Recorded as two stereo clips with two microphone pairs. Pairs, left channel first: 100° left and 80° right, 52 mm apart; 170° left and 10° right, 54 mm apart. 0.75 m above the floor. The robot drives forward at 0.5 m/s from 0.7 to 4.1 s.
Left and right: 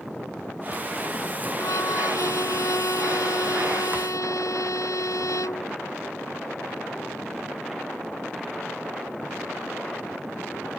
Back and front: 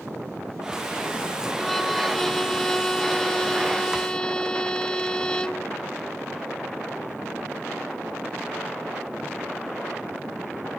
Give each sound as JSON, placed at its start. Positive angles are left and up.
{"t": 1.6, "sound": "a violin", "azimuth_deg": 85}